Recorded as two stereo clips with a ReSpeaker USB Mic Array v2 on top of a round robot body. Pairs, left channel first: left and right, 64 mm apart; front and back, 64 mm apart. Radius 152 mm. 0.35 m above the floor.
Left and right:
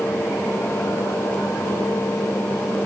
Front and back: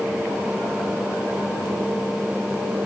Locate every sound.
Only background noise.